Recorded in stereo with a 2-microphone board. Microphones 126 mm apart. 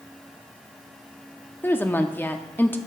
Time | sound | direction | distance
1.6 | a woman speaking | 15° left (ahead or behind) | 0.7 m